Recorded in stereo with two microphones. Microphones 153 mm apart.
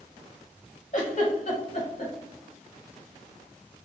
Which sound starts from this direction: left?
A giggle, at 0.9 s.